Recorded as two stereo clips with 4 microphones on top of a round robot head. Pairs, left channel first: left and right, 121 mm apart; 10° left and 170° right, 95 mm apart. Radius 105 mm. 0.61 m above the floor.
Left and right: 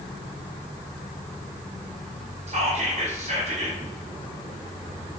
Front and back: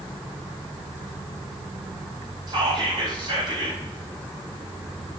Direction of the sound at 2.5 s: 125° right.